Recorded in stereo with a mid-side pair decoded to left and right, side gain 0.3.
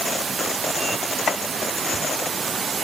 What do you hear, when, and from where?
1.3 s chopping: 70° left, 1.4 m